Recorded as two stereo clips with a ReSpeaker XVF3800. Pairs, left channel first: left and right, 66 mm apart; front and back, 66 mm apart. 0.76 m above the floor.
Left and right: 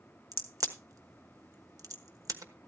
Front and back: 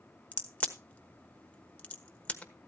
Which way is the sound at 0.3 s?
70° right.